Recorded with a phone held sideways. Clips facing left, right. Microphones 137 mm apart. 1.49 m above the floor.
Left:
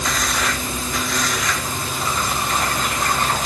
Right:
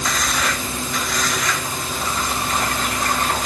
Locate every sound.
Only background noise.